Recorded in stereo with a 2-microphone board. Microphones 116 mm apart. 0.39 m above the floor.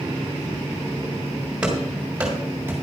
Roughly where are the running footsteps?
Centre.